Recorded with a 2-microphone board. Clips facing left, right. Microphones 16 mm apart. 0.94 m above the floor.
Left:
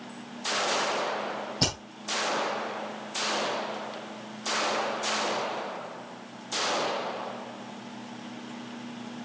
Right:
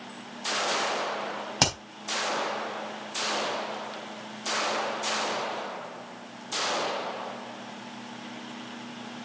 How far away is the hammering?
About 3.5 m.